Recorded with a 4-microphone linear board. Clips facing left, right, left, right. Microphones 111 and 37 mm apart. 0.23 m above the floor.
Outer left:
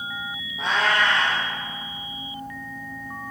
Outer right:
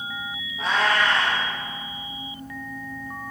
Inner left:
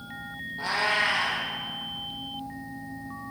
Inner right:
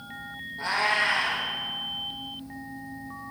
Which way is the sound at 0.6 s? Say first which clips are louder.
Even, inner right 1 dB; 25° left (ahead or behind).